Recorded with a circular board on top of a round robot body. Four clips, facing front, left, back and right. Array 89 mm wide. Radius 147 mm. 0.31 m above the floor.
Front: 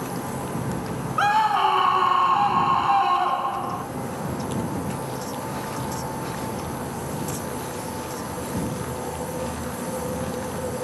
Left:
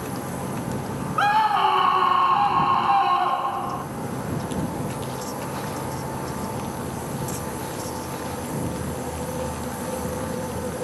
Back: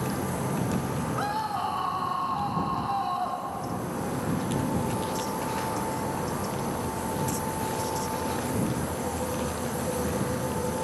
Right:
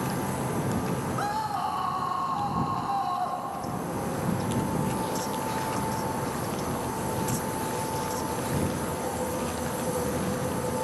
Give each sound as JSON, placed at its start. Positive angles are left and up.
{"t": 1.2, "sound": "a scream", "azimuth_deg": 50}